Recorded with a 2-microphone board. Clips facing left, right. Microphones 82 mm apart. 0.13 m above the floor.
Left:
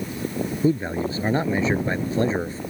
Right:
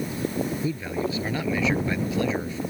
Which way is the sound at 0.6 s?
35° left (ahead or behind).